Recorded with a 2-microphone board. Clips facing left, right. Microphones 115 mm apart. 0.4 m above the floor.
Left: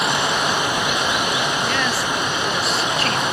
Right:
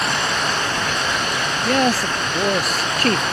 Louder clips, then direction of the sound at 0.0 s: Left 2 dB; 10° left (ahead or behind).